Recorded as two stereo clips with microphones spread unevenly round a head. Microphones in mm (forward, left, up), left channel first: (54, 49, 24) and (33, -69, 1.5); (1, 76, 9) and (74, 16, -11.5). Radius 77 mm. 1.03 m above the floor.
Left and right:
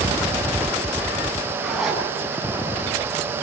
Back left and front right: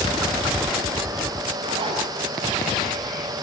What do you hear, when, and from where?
1.6 s a zipper: 10° right, 8 m